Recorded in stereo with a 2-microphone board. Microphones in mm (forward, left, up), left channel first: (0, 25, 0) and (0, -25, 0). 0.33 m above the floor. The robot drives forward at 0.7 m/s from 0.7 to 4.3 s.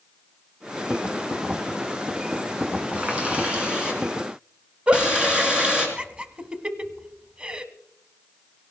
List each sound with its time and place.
2.9 s a running tap: 25° right (ahead or behind), 2.5 m; by 5.9 s 20° right (ahead or behind), 3.5 m
4.9 s a giggle: 25° right (ahead or behind), 0.8 m